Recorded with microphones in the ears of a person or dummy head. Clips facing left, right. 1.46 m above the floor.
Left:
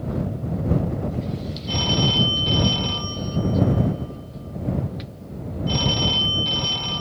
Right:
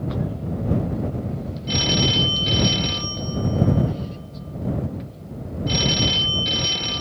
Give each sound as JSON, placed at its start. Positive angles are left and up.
{"t": 1.7, "sound": "a phone ringing", "side_deg": -25}